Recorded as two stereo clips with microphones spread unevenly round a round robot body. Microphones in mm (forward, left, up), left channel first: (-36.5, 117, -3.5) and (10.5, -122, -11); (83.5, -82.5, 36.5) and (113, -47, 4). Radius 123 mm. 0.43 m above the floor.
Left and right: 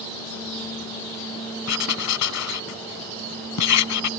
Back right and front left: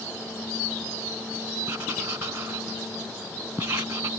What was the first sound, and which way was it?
Writing, 125° left.